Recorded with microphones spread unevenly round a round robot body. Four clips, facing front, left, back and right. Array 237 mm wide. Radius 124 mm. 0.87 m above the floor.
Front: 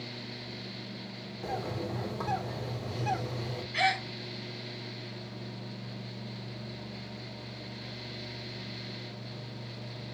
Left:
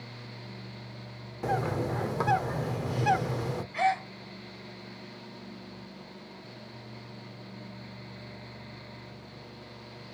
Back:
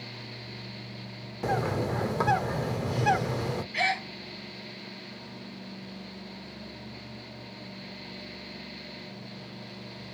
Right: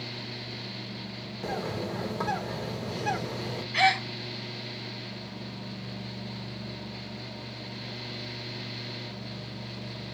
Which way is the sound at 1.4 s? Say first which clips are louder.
Left 3 dB, back 7 dB; 175° left.